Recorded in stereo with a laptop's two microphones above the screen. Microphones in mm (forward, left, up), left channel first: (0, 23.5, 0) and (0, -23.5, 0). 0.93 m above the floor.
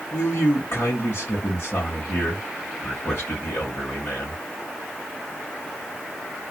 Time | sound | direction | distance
0.1 | a man speaking | 50° left (ahead or behind) | 1.3 m